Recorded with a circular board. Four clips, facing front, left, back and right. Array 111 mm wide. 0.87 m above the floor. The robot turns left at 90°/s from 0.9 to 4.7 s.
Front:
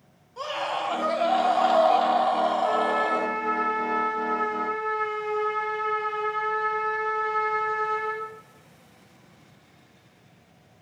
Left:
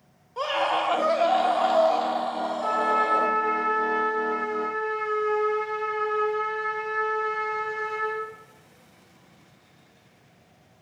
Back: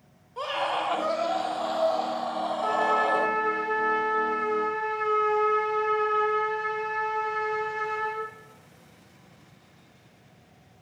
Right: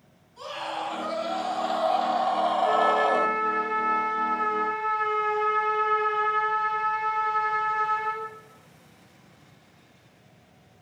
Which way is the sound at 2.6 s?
115° left.